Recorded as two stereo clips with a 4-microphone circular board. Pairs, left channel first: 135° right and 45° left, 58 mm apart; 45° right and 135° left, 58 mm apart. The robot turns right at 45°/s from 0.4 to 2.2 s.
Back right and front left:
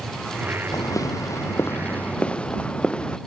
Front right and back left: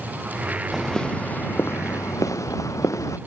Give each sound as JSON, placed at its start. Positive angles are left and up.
{"t": 0.7, "sound": "footsteps", "azimuth_deg": -135}